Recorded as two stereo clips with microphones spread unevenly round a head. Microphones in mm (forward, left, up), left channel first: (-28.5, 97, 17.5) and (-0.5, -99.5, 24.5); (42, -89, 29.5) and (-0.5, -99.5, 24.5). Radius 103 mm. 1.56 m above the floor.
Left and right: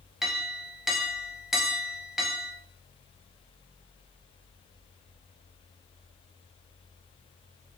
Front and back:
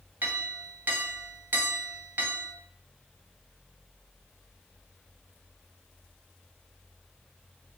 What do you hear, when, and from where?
0.2 s a clink: 165° right, 0.6 m